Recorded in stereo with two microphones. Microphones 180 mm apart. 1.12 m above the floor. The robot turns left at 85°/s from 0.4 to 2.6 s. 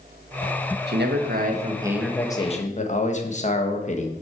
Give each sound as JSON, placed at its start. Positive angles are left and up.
{"t": 0.9, "sound": "a man speaking", "azimuth_deg": -80, "distance_m": 1.4}